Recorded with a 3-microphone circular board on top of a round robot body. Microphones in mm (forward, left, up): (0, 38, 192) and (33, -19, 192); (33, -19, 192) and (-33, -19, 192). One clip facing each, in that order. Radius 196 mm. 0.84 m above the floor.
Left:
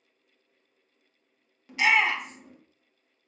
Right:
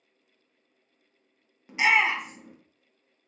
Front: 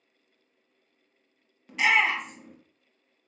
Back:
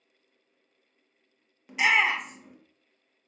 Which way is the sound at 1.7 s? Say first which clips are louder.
Even, even; 100° right.